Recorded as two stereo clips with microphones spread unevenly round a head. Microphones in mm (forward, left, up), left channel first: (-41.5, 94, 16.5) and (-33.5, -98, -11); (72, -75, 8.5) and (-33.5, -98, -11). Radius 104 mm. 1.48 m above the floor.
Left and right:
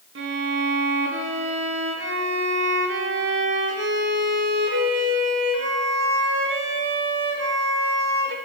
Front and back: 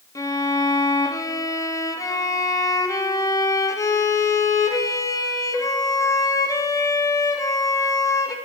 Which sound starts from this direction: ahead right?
A violin, at 0.1 s.